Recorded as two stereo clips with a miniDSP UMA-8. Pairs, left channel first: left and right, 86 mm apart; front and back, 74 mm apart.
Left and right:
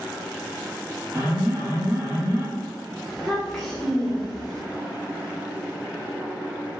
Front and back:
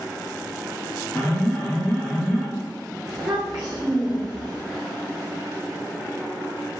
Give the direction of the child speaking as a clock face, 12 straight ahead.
6 o'clock.